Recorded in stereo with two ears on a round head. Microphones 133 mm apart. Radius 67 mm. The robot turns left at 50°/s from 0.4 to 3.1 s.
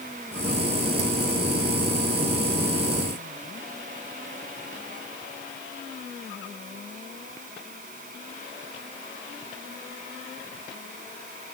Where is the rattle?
I don't hear a rattle.